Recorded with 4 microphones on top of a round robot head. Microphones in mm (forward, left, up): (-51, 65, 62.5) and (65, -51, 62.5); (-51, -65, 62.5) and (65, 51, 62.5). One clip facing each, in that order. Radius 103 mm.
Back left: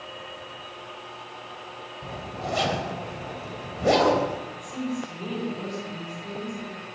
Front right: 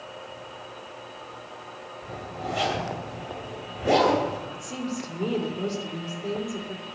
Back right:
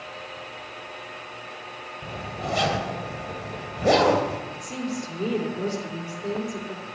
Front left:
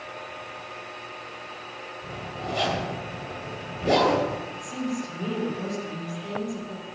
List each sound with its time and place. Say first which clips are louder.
2.0 s a zipper: back left 1 dB, back right 2 dB; 175° right, 3 m
4.5 s a woman speaking: back left 1 dB, front left 1 dB; 90° right, 4 m